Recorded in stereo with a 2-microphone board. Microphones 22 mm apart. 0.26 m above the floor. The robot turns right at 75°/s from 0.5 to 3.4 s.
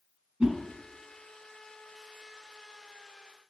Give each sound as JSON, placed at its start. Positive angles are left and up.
{"t": 0.4, "sound": "a whoosh", "side_deg": -65, "distance_m": 1.1}